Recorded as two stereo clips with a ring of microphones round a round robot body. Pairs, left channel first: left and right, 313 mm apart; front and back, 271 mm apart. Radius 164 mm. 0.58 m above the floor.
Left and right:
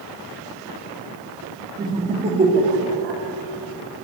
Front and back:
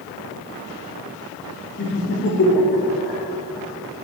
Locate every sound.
1.8 s laughter: 15° right, 1.2 m; by 3.2 s 40° right, 1.8 m